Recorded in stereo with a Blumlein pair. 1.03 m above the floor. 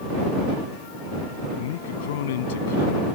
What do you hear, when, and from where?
1.6 s a man speaking: 55° left